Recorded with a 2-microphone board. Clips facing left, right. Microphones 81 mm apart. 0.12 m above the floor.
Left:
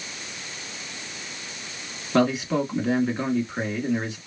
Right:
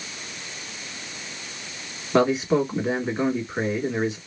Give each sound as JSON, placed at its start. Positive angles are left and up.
{"t": 2.1, "sound": "a man speaking", "side_deg": -15, "distance_m": 1.4}